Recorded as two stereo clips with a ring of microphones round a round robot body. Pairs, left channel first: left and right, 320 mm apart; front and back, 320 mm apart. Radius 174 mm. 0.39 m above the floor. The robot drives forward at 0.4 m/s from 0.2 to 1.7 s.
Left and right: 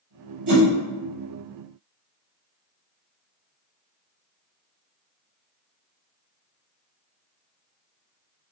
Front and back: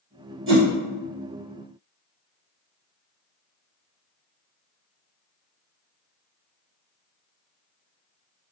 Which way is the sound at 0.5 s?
125° right.